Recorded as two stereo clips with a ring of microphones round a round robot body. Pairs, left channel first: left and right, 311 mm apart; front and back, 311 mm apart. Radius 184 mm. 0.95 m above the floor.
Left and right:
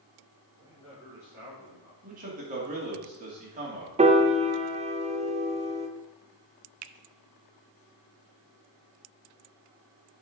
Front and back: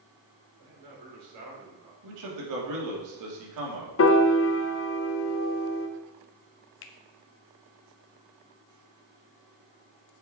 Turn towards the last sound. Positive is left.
turn(degrees=-50)